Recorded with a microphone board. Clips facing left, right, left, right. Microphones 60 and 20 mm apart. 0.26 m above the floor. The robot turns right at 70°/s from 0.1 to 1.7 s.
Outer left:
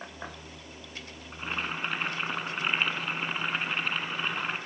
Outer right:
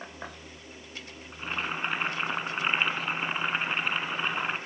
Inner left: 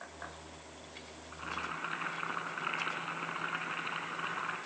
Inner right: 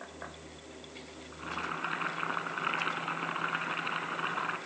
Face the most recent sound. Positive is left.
turn(degrees=-10)  # may be behind; listen again after turning